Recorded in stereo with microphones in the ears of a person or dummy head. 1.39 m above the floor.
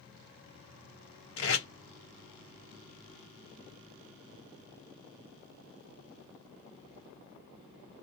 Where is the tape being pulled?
65° left (ahead or behind), 1.1 m.